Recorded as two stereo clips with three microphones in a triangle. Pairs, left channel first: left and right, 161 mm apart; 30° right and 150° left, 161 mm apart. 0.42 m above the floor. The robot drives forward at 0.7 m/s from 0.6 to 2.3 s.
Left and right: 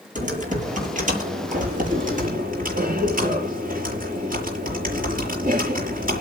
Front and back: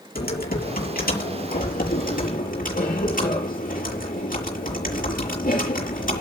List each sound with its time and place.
0.1 s typing on a keyboard: 55° right, 8 m; by 6.2 s 60° right, 7.5 m